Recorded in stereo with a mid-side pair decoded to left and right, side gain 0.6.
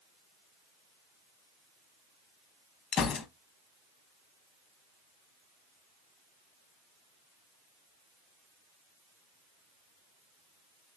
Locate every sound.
2.9 s a gunshot: 55° left, 0.7 m